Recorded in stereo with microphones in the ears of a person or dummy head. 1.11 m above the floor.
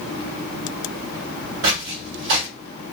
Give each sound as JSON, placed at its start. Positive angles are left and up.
{"t": 1.6, "sound": "footsteps", "side_deg": -60, "distance_m": 2.0}